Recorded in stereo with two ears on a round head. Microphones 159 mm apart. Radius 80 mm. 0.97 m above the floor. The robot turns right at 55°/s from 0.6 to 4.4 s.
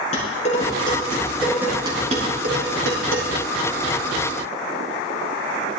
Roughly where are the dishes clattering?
Left.